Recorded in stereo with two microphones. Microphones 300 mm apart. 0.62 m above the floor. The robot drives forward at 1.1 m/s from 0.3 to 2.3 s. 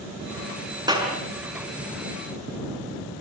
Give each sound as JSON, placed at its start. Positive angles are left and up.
{"t": 0.9, "sound": "a clap", "side_deg": -15, "distance_m": 6.0}